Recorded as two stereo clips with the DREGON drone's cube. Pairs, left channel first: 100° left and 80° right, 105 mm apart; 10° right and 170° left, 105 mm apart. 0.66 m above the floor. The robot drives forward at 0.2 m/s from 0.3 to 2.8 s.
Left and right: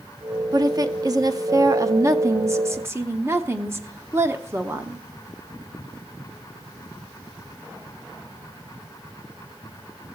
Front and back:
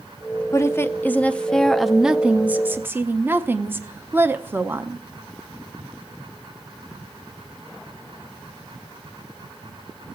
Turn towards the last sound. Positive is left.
turn(degrees=-130)